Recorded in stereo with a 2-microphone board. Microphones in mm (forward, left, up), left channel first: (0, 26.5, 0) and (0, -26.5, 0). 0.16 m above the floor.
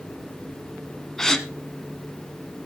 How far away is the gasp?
About 1.4 m.